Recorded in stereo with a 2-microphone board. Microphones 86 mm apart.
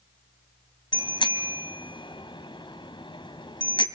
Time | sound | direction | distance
0.9 | a bicycle bell | 75° left (ahead or behind) | 2.5 m